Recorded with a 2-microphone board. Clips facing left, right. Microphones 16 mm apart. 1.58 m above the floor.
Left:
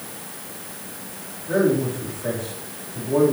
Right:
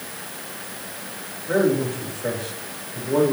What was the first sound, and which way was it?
A man speaking, 40° right (ahead or behind).